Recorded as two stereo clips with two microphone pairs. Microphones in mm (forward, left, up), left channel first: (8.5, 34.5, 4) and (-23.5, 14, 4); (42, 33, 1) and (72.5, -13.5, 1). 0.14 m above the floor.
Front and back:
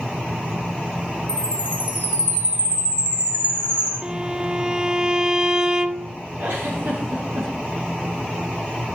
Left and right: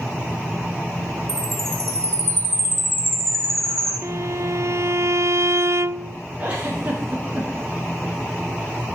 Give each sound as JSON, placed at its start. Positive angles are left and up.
{"t": 1.3, "sound": "a chime", "azimuth_deg": -95, "distance_m": 8.5}
{"t": 4.0, "sound": "a violin", "azimuth_deg": -75, "distance_m": 0.6}
{"t": 6.4, "sound": "a giggle", "azimuth_deg": -120, "distance_m": 8.0}